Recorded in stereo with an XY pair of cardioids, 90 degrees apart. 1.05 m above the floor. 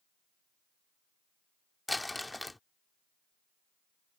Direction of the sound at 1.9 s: 15° left.